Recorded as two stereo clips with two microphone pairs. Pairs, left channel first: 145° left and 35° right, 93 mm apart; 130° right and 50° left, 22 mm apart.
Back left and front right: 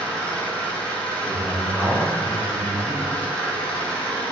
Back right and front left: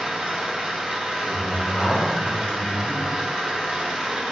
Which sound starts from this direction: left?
An engine running, at 0.0 s.